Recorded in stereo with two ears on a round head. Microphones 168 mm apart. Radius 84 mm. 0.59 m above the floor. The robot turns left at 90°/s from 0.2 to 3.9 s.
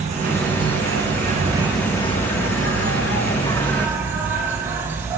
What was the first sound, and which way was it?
An insect, 40° right.